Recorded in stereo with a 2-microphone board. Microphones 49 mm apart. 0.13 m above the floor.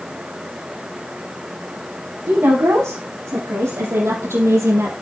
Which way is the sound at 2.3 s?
75° right (ahead or behind).